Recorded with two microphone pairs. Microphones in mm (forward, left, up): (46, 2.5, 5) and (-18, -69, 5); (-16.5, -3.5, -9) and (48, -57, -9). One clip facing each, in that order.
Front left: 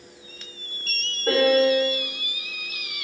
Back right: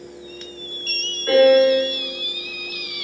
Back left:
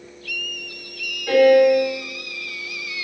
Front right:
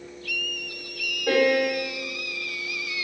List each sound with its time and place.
1.3 s a piano: straight ahead, 1.8 m